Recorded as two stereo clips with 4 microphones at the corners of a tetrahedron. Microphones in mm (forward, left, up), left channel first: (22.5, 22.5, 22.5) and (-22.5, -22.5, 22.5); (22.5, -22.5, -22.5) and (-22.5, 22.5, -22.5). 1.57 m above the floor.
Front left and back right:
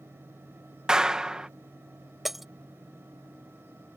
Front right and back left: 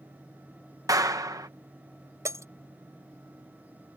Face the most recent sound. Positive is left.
turn(degrees=140)